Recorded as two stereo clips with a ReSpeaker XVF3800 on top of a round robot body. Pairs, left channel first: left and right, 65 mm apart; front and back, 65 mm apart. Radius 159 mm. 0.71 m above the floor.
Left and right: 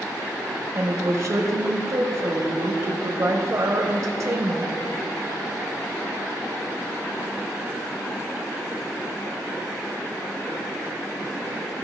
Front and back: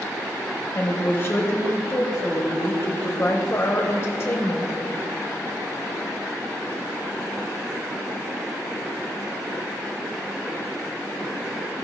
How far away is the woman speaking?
About 1.2 m.